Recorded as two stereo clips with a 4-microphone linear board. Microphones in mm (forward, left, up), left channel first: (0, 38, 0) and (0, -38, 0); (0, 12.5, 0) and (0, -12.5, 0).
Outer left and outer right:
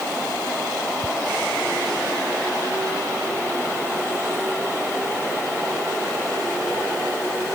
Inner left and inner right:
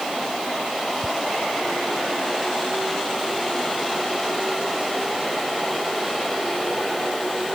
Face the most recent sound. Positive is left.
turn(degrees=80)